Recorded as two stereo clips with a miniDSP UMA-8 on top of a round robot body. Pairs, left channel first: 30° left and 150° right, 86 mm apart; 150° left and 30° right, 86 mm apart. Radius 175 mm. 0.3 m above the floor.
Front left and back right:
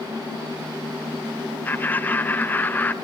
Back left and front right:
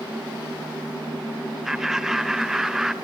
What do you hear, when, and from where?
1.6 s laughter: 45° left, 1.0 m